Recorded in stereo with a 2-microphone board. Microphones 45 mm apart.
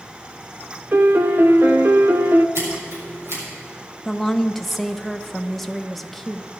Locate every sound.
0.9 s a piano: 50° right (ahead or behind), 0.6 m
2.5 s scissors: 75° right (ahead or behind), 6 m
4.0 s a woman speaking: 5° left (ahead or behind), 0.8 m